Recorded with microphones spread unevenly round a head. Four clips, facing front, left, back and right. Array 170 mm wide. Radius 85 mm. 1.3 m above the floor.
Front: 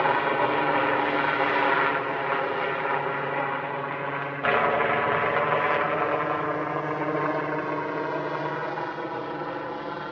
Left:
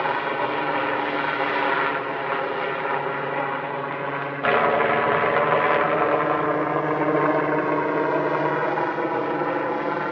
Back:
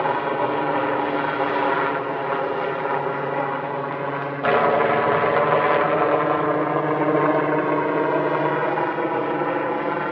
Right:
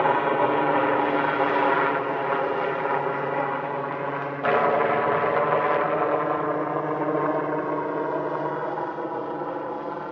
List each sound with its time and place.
0.0 s a helicopter: 120° right; by 10.1 s 150° left